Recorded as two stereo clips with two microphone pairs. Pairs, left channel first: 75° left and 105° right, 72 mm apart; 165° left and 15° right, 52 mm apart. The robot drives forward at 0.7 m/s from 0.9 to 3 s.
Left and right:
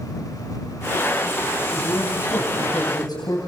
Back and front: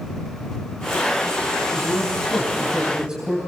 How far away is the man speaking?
About 4 m.